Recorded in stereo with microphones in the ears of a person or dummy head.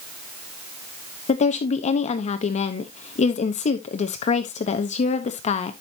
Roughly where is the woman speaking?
Left.